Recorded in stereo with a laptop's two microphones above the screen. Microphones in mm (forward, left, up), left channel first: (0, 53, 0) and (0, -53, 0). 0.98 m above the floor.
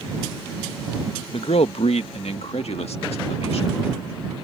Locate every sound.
1.3 s a man speaking: 65° left (ahead or behind); by 3.8 s 70° left (ahead or behind)